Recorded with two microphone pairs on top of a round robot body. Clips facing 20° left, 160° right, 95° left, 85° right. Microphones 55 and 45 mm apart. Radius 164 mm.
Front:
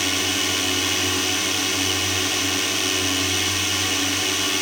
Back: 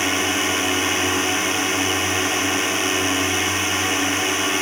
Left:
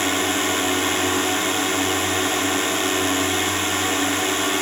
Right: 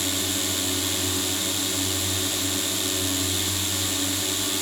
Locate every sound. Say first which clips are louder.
0.0 s a drone: back 3 dB, left 8 dB; 135° left